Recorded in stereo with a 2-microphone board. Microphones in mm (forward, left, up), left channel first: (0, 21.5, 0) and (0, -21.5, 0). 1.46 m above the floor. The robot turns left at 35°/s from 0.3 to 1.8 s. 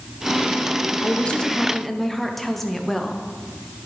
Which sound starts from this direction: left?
A woman speaking, at 1.0 s.